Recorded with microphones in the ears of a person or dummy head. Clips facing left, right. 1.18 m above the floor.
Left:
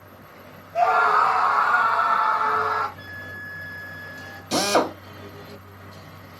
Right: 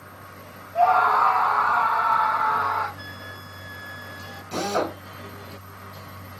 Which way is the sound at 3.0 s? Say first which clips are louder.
Even; 25° right (ahead or behind).